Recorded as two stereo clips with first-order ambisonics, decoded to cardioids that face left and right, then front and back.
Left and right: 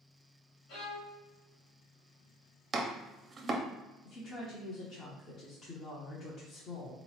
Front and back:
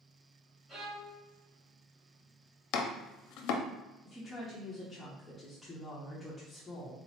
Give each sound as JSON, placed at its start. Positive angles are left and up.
{"t": 0.7, "sound": "a violin", "azimuth_deg": 100, "distance_m": 1.8}
{"t": 2.7, "sound": "chopping", "azimuth_deg": -20, "distance_m": 0.5}
{"t": 4.0, "sound": "a woman speaking", "azimuth_deg": 70, "distance_m": 0.8}